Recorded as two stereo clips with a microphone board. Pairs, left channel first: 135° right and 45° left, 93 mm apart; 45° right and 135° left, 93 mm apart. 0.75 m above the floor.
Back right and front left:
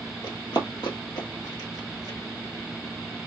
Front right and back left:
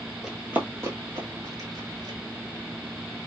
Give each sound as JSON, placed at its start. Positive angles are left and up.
{"t": 0.2, "sound": "running footsteps", "azimuth_deg": -140, "distance_m": 1.0}